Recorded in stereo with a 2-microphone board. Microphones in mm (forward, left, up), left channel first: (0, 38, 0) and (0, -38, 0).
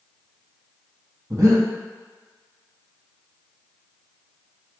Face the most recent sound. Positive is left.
turn(degrees=-45)  # may be behind; listen again after turning